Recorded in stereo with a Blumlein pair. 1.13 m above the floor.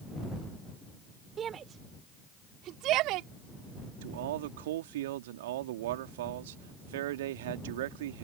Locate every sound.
1.4 s a shout: 25° right; by 3.3 s 40° right
4.0 s a man speaking: 55° right